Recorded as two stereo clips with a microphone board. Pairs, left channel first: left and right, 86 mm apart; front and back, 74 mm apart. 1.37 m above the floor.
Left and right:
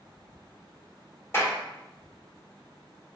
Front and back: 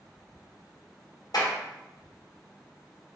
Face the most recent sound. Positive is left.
turn(degrees=30)